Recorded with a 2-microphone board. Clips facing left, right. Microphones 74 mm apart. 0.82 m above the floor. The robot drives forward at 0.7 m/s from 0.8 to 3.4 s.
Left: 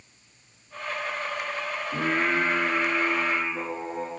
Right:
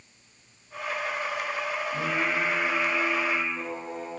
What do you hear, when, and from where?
1.9 s singing: 70° left (ahead or behind), 2.5 m; by 4.1 s 55° left (ahead or behind), 2.5 m